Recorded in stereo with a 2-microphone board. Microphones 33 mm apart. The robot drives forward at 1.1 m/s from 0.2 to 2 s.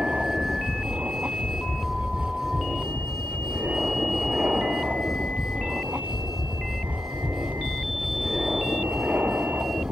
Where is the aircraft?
45° right (ahead or behind).